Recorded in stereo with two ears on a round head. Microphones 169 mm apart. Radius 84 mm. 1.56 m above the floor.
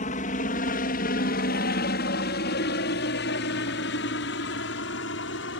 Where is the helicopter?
40° left (ahead or behind); by 5.6 s 70° left (ahead or behind).